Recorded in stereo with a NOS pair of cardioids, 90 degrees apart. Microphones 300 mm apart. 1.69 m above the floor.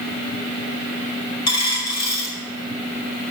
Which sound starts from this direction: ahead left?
A dropped coin, at 1.5 s.